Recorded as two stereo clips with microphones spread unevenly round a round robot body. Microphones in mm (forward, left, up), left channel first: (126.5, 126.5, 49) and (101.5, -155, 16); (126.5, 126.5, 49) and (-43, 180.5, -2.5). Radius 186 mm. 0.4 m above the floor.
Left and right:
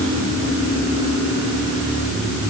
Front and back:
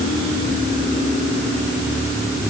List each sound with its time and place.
Only background noise.